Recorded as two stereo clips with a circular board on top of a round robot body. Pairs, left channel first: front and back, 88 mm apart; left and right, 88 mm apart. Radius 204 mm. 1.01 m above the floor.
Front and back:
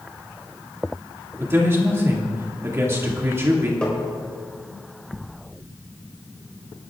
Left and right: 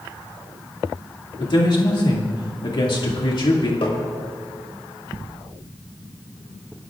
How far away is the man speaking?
About 2 m.